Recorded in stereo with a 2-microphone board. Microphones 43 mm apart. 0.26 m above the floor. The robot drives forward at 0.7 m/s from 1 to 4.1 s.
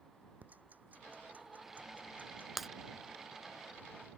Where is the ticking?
40° right (ahead or behind); by 2.5 s 35° right (ahead or behind).